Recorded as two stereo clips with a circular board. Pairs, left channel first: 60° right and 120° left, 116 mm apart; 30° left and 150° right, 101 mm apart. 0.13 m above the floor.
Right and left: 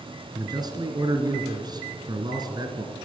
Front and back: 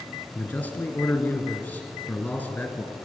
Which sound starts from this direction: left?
A man speaking, at 0.3 s.